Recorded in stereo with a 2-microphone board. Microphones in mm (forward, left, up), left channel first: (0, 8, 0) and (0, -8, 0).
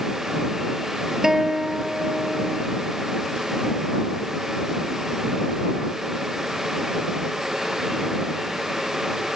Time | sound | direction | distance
1.2 | a guitar | 25° right (ahead or behind) | ?